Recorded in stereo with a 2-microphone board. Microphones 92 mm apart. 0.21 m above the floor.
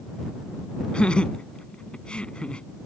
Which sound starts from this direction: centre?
Laughter, at 0.9 s.